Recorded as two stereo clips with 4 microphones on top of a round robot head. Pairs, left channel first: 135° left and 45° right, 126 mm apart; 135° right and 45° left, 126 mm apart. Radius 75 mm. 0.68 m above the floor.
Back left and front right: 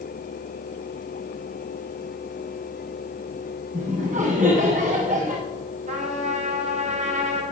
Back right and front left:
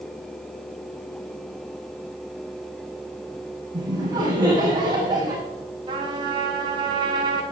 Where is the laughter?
15° right, 6 m.